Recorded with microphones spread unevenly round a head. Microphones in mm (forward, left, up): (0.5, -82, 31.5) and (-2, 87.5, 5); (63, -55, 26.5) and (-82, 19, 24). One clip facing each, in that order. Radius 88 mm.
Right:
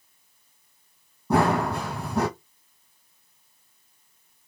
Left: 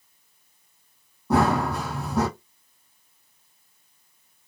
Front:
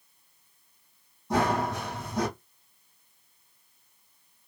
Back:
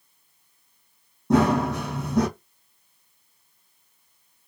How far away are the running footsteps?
About 2.5 m.